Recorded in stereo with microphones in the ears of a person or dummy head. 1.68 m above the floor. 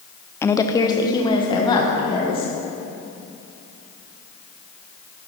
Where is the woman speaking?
20° left (ahead or behind), 0.5 m; by 2.5 s 30° left (ahead or behind), 2.5 m.